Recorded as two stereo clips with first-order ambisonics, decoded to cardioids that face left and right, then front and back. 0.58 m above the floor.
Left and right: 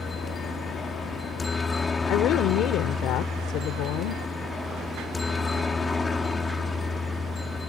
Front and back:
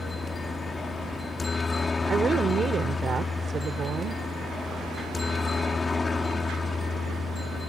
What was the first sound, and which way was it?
A helicopter, 45° left.